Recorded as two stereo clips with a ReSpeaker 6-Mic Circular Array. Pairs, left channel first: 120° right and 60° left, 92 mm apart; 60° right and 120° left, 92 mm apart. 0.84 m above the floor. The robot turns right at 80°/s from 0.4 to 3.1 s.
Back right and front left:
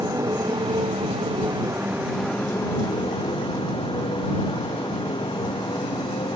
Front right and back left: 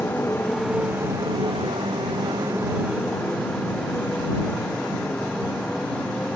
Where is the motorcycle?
10° left; by 6.4 s 140° right.